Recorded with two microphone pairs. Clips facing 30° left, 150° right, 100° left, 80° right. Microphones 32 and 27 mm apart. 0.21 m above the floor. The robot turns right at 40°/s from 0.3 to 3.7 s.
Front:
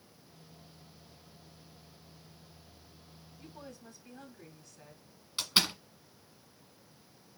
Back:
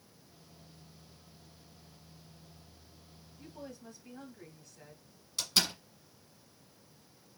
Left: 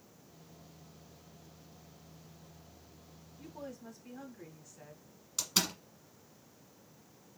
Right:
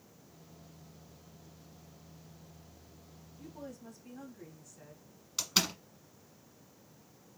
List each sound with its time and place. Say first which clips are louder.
3.4 s a woman speaking: back 2 dB, left 1 dB; 120° left, 1.5 m; by 5.1 s 135° left, 1.5 m
5.4 s a door slam: front 2 dB, right 2 dB; 20° right, 1.4 m